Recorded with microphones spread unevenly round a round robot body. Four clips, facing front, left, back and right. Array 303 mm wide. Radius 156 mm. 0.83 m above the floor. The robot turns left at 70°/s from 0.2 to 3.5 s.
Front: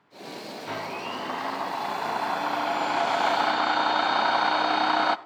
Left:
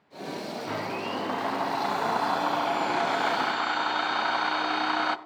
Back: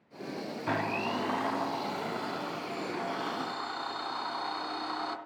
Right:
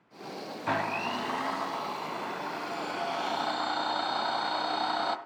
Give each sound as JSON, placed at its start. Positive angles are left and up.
{"t": 0.7, "sound": "a blender", "azimuth_deg": -165, "distance_m": 0.9}